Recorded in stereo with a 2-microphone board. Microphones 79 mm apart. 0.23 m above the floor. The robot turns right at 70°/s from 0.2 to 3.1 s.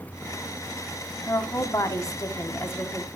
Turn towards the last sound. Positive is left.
turn(degrees=160)